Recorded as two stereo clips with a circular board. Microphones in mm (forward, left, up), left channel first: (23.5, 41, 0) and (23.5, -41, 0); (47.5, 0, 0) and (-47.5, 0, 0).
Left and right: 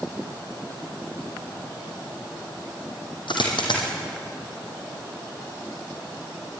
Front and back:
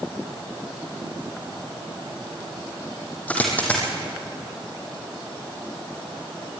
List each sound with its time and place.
3.3 s a dropped coin: 75° left, 4 m